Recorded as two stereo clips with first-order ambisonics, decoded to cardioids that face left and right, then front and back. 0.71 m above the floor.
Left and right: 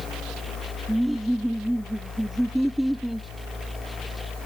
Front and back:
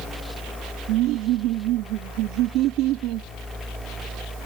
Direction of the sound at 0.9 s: Straight behind.